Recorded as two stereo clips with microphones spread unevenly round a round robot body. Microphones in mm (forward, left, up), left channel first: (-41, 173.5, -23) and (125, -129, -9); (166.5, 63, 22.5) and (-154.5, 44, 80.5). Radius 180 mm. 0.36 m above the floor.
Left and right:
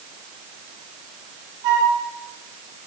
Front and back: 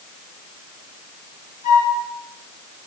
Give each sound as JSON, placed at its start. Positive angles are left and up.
{"t": 1.6, "sound": "a flute", "azimuth_deg": -65, "distance_m": 10.0}